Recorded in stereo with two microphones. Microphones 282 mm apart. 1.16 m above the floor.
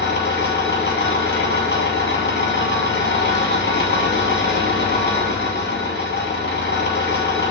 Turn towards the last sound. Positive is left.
turn(degrees=40)  # may be behind; listen again after turning